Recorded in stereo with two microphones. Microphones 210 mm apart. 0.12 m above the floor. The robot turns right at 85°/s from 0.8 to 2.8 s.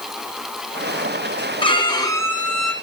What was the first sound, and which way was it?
A violin, 25° left (ahead or behind).